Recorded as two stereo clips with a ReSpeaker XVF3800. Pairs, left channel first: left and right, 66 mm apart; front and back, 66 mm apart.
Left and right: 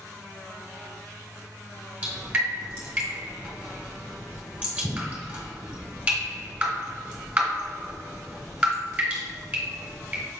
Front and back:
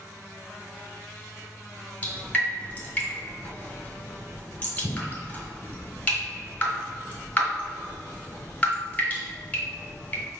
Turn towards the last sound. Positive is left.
turn(degrees=-40)